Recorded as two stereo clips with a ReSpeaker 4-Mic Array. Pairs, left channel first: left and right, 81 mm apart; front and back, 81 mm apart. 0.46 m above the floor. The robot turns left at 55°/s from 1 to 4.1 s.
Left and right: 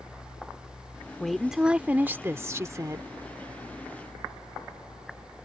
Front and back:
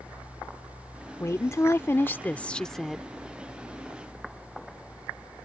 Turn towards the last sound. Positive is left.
turn(degrees=-155)